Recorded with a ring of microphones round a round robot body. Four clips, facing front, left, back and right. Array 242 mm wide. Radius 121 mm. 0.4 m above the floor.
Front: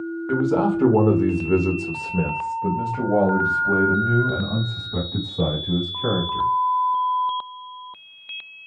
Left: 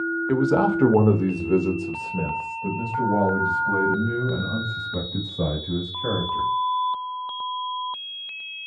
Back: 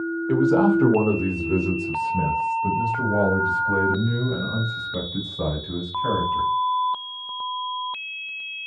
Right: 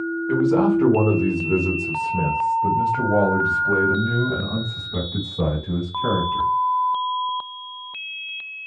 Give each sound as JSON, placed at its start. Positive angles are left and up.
{"t": 0.3, "sound": "a man speaking", "azimuth_deg": 100, "distance_m": 1.3}